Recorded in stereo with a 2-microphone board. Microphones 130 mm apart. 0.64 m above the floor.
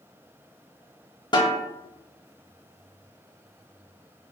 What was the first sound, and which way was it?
A snare drum, 35° left (ahead or behind).